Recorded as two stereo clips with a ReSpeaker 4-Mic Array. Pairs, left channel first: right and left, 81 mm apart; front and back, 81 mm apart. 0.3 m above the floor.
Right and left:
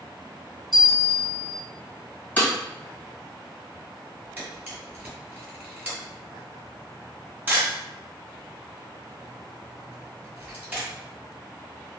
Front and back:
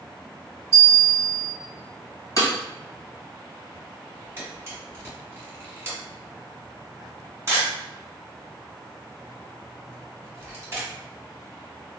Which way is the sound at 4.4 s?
145° left.